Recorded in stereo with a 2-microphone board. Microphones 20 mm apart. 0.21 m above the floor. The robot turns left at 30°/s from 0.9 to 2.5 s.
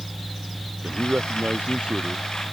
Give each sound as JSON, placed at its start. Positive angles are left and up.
{"t": 0.8, "sound": "a man speaking", "azimuth_deg": -80}